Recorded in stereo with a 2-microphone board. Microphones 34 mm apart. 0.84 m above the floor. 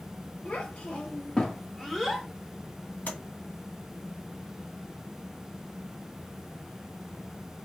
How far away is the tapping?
About 1.8 m.